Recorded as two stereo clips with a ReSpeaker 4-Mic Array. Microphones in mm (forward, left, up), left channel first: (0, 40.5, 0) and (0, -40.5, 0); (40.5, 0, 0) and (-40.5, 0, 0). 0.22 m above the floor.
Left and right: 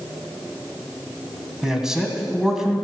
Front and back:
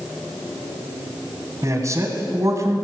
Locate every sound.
1.6 s a man speaking: 170° right, 1.5 m